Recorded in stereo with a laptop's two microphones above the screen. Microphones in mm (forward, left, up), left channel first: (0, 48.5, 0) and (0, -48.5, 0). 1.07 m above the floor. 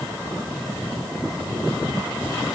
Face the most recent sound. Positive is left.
No sound to turn to.